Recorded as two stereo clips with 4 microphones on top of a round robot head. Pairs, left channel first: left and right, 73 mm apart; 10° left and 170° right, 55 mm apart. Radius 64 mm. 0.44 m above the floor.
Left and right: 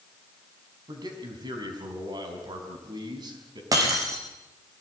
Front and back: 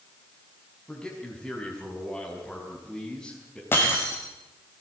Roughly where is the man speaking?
Right.